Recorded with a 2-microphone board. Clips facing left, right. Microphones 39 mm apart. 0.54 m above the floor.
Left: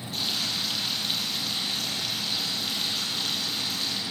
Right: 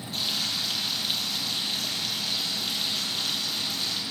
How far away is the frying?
About 8.5 m.